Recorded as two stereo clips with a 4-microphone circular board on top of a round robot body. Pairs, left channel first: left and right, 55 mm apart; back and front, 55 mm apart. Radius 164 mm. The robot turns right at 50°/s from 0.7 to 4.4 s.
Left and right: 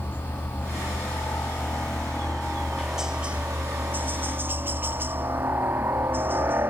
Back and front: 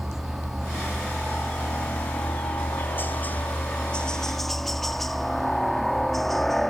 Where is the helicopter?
80° left; by 6.7 s 95° right.